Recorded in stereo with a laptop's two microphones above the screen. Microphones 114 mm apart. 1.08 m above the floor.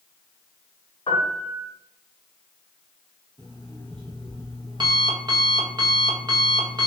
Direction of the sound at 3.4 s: 40° right (ahead or behind).